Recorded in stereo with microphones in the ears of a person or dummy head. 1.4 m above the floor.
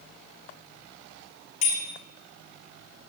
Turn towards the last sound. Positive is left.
turn(degrees=45)  # may be behind; listen again after turning